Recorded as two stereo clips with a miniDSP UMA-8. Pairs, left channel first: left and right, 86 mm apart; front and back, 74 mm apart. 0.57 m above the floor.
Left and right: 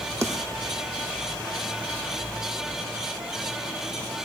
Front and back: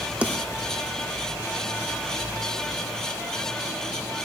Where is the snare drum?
120° right, 1.6 m.